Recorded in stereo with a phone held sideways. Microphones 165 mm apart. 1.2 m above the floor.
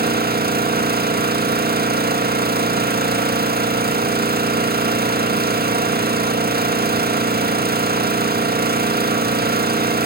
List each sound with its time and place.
0.0 s an engine running: 70° right (ahead or behind), 1.8 m